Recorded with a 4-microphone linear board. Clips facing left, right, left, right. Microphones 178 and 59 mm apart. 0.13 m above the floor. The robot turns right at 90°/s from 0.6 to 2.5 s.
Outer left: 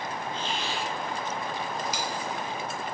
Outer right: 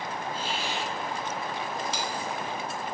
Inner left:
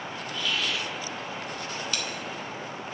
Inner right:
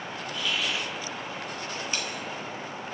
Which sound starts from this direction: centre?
A hiss, at 0.3 s.